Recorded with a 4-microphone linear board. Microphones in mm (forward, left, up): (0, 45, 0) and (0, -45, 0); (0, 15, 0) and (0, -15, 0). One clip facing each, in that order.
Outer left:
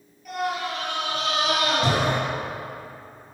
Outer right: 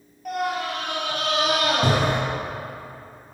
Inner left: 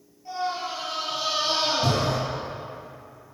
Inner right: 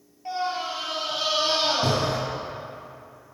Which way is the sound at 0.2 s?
55° right (ahead or behind).